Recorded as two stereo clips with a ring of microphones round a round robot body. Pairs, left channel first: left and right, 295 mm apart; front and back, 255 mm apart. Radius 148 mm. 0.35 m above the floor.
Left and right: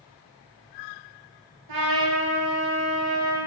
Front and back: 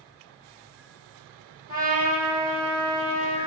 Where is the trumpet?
75° right, 2.5 m.